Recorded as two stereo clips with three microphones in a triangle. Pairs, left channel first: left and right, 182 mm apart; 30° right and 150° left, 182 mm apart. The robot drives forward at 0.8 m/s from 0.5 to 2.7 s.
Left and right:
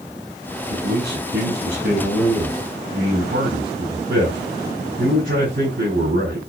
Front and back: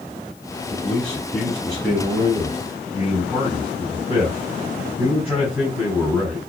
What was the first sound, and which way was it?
A man speaking, 115° right.